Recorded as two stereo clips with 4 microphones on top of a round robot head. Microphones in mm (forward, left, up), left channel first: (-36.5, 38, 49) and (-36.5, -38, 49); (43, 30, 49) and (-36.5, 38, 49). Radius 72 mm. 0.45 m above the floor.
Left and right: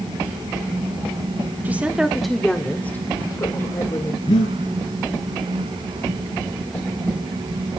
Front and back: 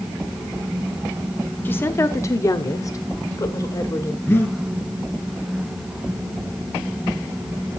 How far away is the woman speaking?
About 1.1 m.